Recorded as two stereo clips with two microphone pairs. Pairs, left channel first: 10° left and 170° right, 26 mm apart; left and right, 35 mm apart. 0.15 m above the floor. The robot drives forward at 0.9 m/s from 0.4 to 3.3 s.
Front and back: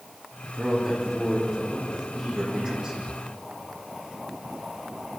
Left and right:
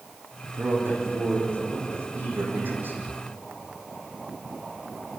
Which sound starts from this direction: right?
A man speaking, at 0.5 s.